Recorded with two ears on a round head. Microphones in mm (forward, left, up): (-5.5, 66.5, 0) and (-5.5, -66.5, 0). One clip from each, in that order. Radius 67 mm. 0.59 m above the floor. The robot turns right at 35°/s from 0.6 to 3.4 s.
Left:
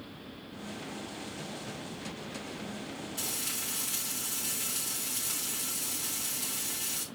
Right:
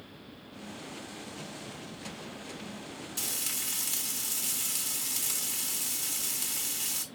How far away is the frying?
About 3.5 m.